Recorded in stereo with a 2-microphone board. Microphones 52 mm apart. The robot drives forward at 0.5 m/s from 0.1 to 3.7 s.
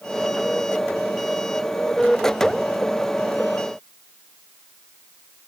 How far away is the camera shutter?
No camera shutter in this recording.